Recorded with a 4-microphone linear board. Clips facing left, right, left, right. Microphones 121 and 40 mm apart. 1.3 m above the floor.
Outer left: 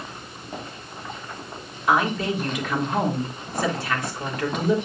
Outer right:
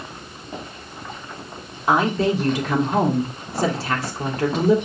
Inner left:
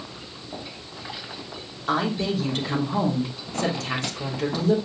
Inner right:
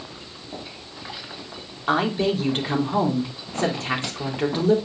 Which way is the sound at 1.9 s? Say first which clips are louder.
Outer right 3 dB, inner right 3 dB; 30° right (ahead or behind).